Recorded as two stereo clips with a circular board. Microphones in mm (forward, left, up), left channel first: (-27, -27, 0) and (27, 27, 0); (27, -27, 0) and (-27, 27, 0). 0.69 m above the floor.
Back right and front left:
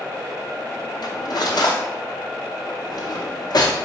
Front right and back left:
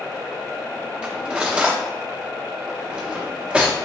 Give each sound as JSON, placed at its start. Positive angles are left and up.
{"t": 1.0, "sound": "cutlery clinking", "azimuth_deg": -150, "distance_m": 0.7}